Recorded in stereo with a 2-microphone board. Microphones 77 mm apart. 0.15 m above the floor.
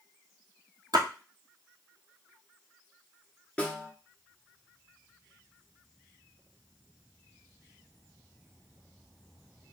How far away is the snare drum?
About 1.5 m.